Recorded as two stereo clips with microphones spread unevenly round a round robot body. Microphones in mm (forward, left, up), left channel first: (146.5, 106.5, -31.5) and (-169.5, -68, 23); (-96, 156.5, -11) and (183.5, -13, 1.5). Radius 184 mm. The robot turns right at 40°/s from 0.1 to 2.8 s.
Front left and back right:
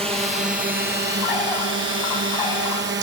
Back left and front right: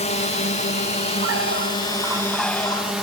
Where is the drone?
140° left; by 3.0 s 120° right.